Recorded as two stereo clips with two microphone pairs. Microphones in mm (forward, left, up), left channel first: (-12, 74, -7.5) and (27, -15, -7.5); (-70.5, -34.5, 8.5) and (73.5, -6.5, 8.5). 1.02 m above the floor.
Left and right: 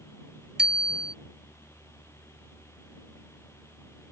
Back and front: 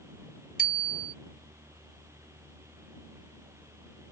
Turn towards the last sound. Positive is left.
turn(degrees=-150)